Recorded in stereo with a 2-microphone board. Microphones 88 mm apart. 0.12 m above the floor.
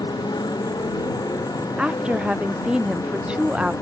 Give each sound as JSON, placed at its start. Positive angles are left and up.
{"t": 0.0, "sound": "a motorcycle", "side_deg": 50}
{"t": 1.8, "sound": "a woman speaking", "side_deg": -10}